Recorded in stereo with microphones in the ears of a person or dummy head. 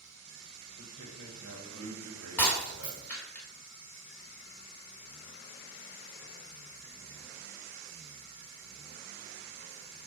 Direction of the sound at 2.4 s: 15° left (ahead or behind).